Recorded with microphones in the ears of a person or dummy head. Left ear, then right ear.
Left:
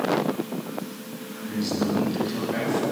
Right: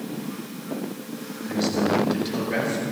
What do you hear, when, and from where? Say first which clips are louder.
1.5 s a man speaking: right 4 dB; 45° right (ahead or behind), 8 m